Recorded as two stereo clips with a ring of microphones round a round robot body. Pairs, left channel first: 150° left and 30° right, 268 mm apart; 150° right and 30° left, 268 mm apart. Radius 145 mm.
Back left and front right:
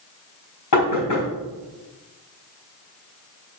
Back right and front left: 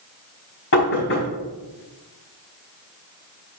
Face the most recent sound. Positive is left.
turn(degrees=165)